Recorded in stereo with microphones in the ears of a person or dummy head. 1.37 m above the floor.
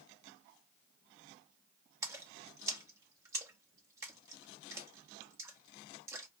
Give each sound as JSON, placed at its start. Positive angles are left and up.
{"t": 2.0, "sound": "a splash", "side_deg": -20, "distance_m": 0.8}